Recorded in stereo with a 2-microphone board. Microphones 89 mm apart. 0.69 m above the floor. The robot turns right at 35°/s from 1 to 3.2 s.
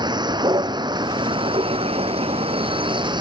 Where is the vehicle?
130° right; by 3.2 s 50° right.